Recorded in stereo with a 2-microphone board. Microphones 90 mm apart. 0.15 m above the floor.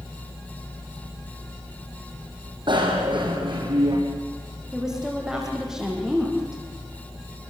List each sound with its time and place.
2.7 s a bicycle bell: 60° right (ahead or behind), 4.5 m
4.7 s a woman speaking: 5° right (ahead or behind), 7 m